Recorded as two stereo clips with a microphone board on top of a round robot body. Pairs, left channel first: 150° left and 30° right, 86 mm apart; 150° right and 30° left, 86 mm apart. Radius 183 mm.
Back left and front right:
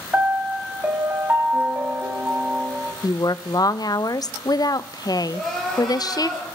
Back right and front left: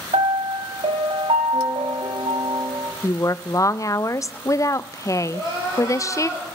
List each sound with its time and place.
0.1 s a piano: 40° left, 1.6 m
3.0 s a woman speaking: 170° left, 0.6 m
5.3 s crying: 60° left, 5 m